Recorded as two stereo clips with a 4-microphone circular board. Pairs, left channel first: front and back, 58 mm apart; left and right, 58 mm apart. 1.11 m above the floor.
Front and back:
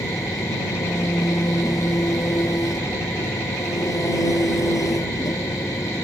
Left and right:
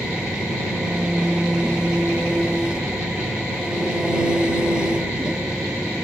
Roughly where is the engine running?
Ahead.